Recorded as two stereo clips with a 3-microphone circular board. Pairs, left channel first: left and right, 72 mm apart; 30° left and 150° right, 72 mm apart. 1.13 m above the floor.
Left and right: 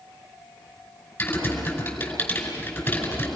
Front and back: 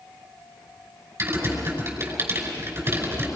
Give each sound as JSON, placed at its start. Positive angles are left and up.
{"t": 1.2, "sound": "typing on a keyboard", "azimuth_deg": 155, "distance_m": 5.5}